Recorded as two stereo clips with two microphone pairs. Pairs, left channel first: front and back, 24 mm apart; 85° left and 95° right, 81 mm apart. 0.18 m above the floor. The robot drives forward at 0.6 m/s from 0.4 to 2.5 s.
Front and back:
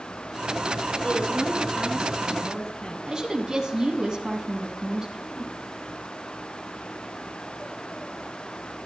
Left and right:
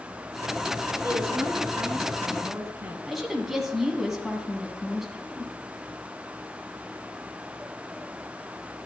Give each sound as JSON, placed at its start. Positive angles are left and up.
{"t": 1.0, "sound": "a woman speaking", "azimuth_deg": -35, "distance_m": 3.0}
{"t": 3.1, "sound": "a woman speaking", "azimuth_deg": 180, "distance_m": 1.4}